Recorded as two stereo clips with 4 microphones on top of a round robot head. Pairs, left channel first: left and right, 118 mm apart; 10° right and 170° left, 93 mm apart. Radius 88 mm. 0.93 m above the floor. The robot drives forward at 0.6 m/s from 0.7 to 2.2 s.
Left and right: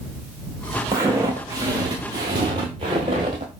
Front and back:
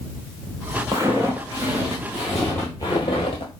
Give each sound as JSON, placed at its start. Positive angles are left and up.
{"t": 0.9, "sound": "footsteps", "azimuth_deg": -135, "distance_m": 1.0}